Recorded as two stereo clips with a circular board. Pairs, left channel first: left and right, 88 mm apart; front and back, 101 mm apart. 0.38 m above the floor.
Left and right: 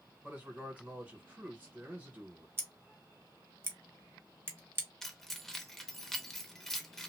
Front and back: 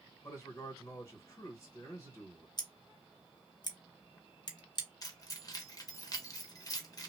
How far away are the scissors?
About 0.8 m.